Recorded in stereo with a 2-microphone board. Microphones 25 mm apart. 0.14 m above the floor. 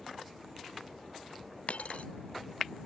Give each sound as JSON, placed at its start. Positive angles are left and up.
{"t": 1.7, "sound": "a dropped coin", "side_deg": 75}